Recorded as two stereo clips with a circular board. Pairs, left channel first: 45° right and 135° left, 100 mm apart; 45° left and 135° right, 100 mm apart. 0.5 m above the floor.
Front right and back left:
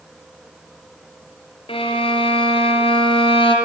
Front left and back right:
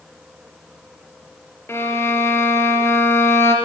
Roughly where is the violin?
Ahead.